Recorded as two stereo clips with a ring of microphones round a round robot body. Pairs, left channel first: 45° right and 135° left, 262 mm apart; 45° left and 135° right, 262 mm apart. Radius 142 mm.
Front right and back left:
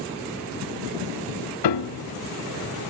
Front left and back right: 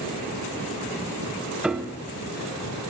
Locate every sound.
1.6 s a piano: 50° right, 0.6 m